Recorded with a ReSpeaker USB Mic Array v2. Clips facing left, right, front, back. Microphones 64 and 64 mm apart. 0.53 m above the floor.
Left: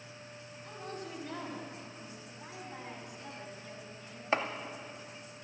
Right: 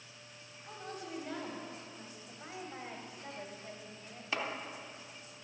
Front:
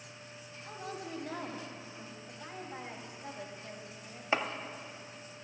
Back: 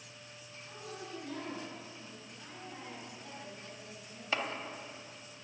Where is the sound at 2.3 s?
40° right, 2.5 m.